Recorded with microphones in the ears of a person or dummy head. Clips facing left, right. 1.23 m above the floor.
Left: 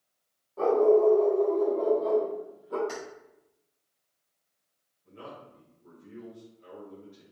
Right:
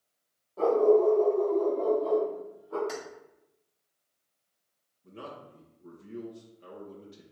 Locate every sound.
0.6 s a dog barking: centre (ahead or behind), 1.5 m; by 2.8 s 50° left (ahead or behind), 1.5 m
2.9 s keys jangling: 5° right (ahead or behind), 2 m
5.0 s a man speaking: 50° right (ahead or behind), 0.9 m